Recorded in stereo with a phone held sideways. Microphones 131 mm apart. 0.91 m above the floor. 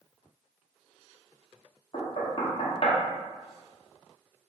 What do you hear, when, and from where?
1.9 s knocking: 50° left (ahead or behind), 0.8 m